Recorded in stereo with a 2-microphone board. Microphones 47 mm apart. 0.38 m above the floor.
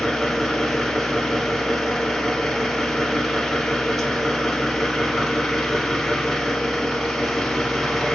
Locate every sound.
0.0 s an engine running: 5° left (ahead or behind), 1.2 m